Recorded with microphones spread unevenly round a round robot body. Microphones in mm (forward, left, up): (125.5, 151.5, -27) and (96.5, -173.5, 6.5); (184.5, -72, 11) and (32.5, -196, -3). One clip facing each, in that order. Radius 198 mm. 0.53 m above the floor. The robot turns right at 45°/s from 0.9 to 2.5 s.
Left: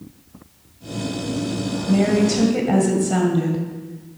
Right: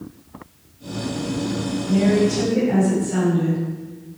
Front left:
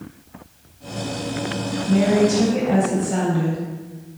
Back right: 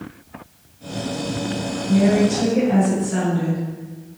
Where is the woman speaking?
55° left, 2.5 m; by 4.2 s 85° left, 2.5 m.